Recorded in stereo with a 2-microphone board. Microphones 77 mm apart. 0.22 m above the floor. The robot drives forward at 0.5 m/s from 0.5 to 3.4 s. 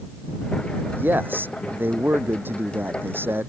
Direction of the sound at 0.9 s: 25° right (ahead or behind).